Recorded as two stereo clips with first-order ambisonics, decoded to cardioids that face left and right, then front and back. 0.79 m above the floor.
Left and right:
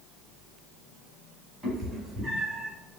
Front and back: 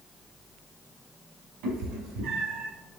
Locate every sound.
1.6 s a cat meowing: 175° right, 3 m; by 2.7 s 165° right, 3 m